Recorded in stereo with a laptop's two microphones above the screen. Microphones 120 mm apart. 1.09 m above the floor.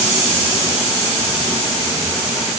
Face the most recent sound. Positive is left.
No sound to turn to.